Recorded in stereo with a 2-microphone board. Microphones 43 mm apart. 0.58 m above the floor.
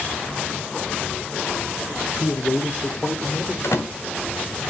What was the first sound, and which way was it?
A man speaking, 50° left (ahead or behind).